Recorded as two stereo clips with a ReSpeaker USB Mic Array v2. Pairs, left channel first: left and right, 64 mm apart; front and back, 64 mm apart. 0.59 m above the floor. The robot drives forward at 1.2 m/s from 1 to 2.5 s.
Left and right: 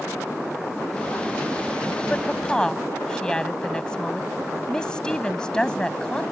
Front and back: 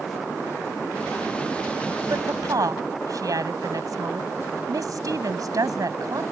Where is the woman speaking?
165° left.